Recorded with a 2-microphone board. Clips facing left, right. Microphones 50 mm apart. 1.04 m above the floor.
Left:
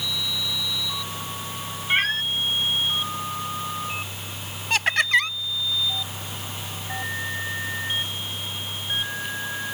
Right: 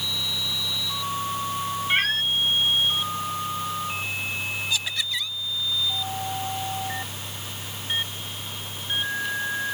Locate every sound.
1.9 s a cat meowing: 5° left (ahead or behind)
4.7 s laughter: 55° left (ahead or behind)